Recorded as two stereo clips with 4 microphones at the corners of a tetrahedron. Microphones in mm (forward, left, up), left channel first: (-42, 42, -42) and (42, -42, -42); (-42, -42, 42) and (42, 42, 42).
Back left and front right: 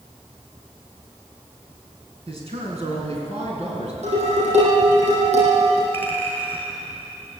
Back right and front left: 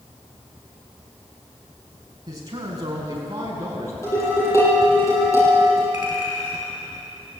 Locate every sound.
2.3 s a man speaking: 10° right, 5 m; by 3.9 s 20° right, 5.5 m
4.0 s dishes clattering: 70° right, 9 m
5.9 s a clink: 155° right, 5.5 m